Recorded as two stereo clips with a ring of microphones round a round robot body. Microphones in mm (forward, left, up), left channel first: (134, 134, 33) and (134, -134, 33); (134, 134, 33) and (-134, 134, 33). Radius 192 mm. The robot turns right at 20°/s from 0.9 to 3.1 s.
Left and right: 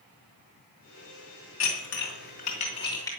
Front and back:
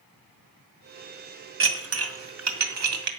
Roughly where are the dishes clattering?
Behind left.